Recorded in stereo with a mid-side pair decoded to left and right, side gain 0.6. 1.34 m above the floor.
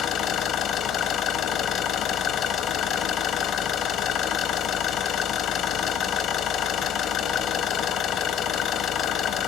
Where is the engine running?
55° left, 1.1 m.